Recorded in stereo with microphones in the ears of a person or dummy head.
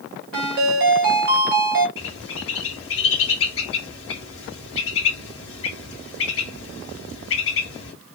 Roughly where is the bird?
Left.